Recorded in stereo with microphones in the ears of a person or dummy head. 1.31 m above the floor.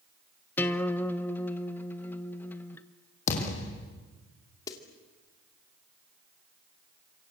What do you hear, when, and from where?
0.6 s a guitar: 15° left (ahead or behind), 1.1 m
3.3 s a thud: 50° left (ahead or behind), 5 m
4.7 s a snare drum: 25° left (ahead or behind), 2.5 m